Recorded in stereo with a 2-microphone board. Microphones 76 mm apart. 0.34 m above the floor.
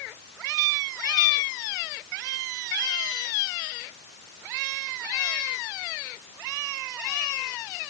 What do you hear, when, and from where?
Only background noise.